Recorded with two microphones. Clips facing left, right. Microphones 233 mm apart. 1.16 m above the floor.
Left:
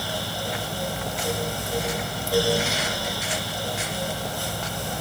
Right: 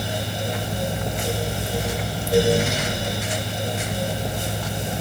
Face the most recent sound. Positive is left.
No sound to turn to.